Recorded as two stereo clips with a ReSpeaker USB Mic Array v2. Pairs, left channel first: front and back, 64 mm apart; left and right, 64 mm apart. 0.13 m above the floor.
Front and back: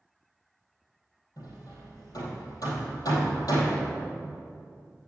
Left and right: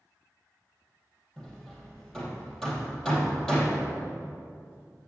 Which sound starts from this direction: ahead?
Hammering, at 1.4 s.